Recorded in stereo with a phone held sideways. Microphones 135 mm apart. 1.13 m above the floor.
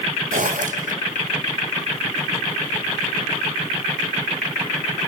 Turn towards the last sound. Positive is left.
turn(degrees=-70)  # may be behind; listen again after turning